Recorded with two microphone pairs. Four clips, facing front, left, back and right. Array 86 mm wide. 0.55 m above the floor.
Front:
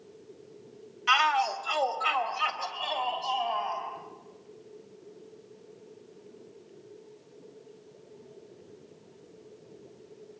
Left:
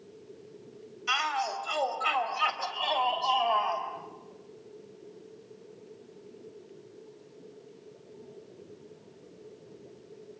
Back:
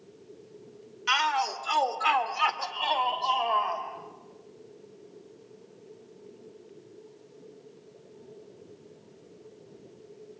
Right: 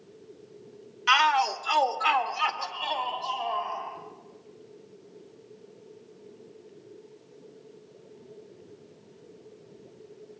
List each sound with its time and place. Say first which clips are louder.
1.1 s a shout: right 8 dB, front 2 dB; 100° right, 2 m; by 3.8 s 160° left, 3 m